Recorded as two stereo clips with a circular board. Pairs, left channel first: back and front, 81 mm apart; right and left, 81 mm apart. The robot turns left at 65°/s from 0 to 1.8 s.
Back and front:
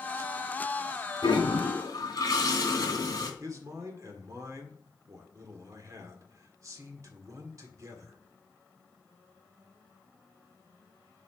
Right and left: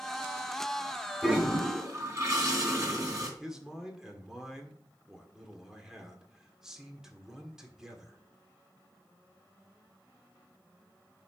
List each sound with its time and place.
1.2 s a toilet flushing: 175° left, 3 m; by 3.3 s 140° left, 3 m
3.4 s a man speaking: 10° left, 1.6 m